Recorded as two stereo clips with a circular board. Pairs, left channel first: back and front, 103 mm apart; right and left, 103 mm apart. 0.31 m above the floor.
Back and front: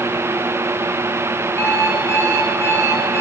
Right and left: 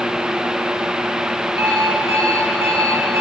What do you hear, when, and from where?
1.6 s an alarm clock: 115° right, 4.5 m